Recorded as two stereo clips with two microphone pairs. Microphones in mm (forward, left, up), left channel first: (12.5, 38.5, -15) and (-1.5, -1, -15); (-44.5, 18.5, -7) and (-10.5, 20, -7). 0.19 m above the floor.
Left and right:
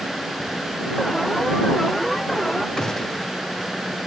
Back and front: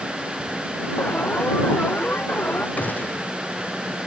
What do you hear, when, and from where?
1.0 s an alarm: 155° left
2.8 s a gunshot: 145° left